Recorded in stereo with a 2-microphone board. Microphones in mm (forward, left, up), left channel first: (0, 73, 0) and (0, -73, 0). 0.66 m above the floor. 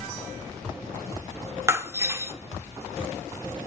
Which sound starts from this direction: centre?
Breaking glass, at 1.7 s.